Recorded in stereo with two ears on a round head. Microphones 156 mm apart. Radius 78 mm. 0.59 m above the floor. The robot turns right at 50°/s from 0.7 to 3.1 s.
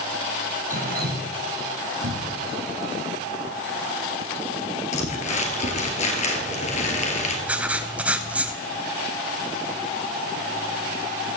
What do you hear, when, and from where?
0.7 s dripping: 45° right (ahead or behind), 1.8 m; by 1.3 s 75° right (ahead or behind), 1.8 m
2.0 s a cupboard door: 80° right, 1.2 m; by 2.5 s 70° right (ahead or behind), 1.2 m
4.9 s crumpling: 40° left (ahead or behind), 2.5 m
7.5 s writing: 10° right (ahead or behind), 0.8 m